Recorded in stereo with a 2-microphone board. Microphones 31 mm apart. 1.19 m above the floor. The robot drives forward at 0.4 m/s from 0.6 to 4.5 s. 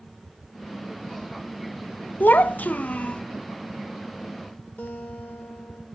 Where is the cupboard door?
No cupboard door in this recording.